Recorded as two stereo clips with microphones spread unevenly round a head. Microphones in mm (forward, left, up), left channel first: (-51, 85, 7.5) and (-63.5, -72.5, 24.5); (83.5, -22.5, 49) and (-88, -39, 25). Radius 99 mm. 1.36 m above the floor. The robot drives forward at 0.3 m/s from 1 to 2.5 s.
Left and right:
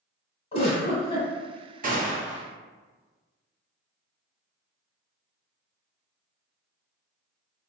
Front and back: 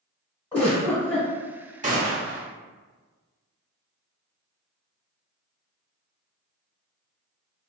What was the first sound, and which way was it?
A giggle, 60° left.